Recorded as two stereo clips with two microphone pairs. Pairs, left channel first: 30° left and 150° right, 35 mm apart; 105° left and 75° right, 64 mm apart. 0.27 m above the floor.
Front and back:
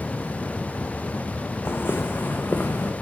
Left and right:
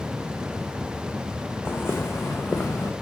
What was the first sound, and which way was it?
Footsteps, 45° left.